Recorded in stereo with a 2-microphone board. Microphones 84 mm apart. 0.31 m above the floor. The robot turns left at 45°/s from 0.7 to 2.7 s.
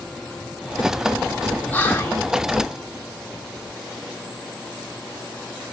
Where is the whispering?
15° left (ahead or behind), 1.3 m; by 2.2 s 30° left (ahead or behind), 1.3 m.